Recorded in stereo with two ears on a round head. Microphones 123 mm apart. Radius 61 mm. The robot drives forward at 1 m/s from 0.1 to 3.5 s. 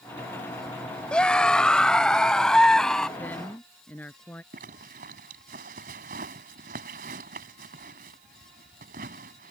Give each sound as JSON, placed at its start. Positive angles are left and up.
{"t": 1.1, "sound": "a scream", "side_deg": 5}
{"t": 3.2, "sound": "a woman speaking", "side_deg": 10}
{"t": 4.5, "sound": "a zipper", "side_deg": -70}